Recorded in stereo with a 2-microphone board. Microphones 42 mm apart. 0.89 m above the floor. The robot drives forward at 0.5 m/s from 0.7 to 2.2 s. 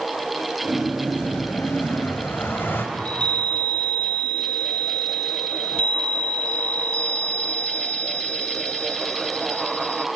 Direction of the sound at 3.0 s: 30° left (ahead or behind).